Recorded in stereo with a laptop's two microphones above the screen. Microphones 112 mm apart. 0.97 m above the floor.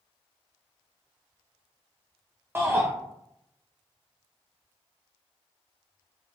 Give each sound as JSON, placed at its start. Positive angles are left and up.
{"t": 2.5, "sound": "a shout", "side_deg": -20, "distance_m": 0.6}